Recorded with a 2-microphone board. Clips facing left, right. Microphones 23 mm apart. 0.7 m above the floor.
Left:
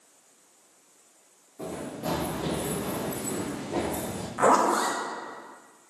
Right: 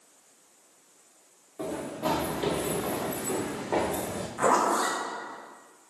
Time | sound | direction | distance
1.6 | running footsteps | 40° right (ahead or behind) | 3 m
4.4 | a zipper | 20° left (ahead or behind) | 1.2 m